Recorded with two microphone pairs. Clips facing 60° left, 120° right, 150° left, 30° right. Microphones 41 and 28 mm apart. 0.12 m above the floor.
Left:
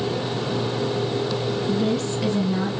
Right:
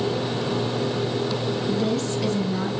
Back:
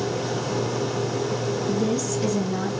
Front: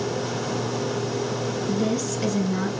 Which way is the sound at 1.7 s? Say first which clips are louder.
Left 1 dB, even; 5° left.